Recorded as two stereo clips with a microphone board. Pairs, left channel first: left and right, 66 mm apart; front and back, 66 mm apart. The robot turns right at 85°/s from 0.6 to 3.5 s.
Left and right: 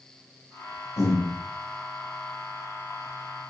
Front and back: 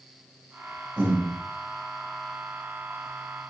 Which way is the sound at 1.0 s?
110° left.